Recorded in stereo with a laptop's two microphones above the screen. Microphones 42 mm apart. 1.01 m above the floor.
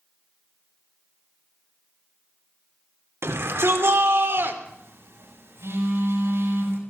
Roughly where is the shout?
Right.